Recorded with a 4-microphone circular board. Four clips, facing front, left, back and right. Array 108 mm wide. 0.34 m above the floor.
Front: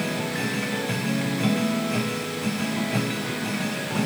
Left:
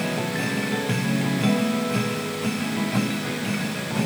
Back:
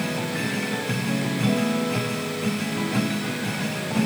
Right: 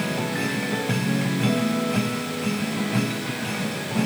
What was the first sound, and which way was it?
Only background noise.